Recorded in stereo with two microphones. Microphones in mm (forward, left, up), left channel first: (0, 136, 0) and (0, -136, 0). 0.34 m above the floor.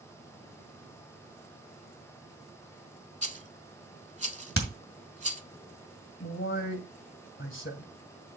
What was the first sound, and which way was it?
A rattle, 25° right (ahead or behind).